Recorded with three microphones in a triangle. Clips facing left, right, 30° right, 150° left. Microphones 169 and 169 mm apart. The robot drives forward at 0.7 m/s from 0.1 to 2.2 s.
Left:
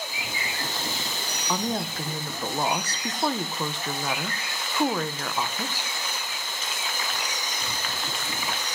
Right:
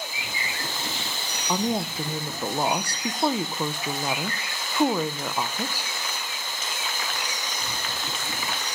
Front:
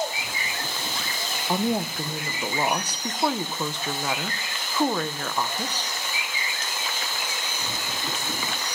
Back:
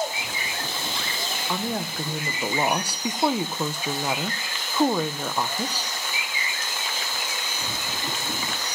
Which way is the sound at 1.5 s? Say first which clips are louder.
Right 3 dB, front 5 dB; 30° right.